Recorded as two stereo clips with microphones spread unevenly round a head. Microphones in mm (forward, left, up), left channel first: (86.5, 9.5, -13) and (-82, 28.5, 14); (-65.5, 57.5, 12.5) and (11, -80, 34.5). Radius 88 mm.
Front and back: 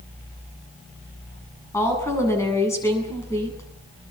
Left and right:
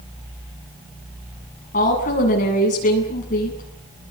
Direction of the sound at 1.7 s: 70° left.